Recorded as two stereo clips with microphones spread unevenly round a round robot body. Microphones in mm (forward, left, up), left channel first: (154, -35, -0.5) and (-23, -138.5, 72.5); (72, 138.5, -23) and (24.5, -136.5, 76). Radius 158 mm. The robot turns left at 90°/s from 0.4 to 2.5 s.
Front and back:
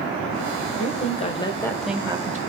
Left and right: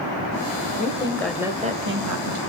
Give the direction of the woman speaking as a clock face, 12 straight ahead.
10 o'clock.